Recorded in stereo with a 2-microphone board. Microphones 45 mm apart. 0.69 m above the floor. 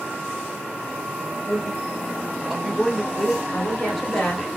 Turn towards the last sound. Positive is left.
turn(degrees=25)  # may be behind; listen again after turning